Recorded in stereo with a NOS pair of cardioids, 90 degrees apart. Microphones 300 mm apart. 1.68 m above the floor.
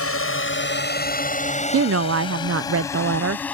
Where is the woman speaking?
50° right.